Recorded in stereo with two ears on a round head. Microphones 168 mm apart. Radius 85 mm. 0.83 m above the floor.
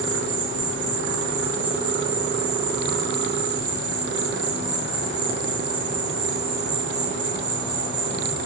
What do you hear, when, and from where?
0.0 s an insect: 55° right (ahead or behind), 5 m